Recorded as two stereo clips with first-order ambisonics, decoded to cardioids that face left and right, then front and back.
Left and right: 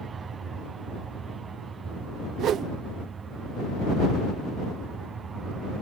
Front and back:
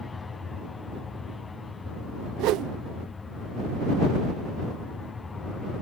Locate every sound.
0.0 s an aircraft: 60° right
2.4 s a whoosh: 145° right